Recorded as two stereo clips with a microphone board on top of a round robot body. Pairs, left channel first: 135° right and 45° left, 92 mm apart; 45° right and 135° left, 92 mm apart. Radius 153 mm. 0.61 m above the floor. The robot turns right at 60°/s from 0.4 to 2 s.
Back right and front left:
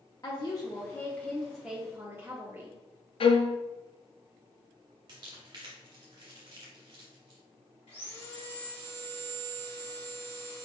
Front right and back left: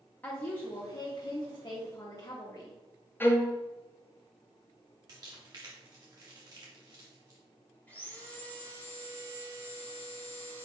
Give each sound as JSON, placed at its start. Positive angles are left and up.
{"t": 0.2, "sound": "a woman speaking", "azimuth_deg": -110, "distance_m": 1.1}
{"t": 3.2, "sound": "a violin", "azimuth_deg": -115, "distance_m": 0.6}
{"t": 5.1, "sound": "crumpling", "azimuth_deg": 90, "distance_m": 0.5}
{"t": 7.9, "sound": "sawing", "azimuth_deg": -115, "distance_m": 2.5}